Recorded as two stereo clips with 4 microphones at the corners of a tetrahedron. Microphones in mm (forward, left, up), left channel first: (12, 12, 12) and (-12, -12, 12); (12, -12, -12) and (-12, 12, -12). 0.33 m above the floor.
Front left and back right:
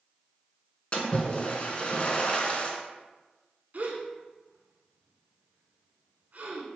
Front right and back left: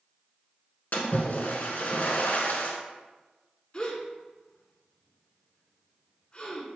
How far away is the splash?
About 0.7 m.